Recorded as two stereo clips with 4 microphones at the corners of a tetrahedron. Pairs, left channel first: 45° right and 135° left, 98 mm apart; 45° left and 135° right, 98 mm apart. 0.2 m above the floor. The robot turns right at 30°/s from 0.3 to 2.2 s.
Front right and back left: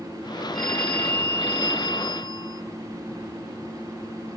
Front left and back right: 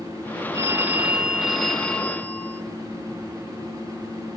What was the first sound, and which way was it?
A phone ringing, 75° right.